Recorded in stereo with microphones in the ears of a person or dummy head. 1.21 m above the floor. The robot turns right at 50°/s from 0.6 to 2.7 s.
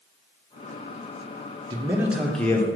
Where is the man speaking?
30° right, 0.5 m; by 2.7 s 20° left, 0.5 m.